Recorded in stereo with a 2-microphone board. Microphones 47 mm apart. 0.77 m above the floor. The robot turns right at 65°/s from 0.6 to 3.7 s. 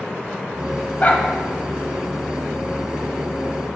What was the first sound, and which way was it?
A dog barking, 35° left (ahead or behind).